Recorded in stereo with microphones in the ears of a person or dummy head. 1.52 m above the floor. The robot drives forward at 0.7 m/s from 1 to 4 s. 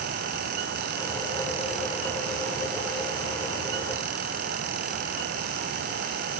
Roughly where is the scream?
No scream in this recording.